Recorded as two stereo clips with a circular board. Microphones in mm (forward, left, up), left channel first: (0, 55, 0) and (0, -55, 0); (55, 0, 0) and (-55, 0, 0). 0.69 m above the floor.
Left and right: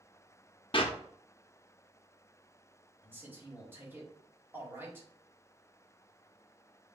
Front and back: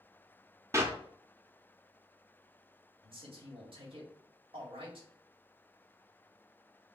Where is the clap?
120° left, 0.7 m.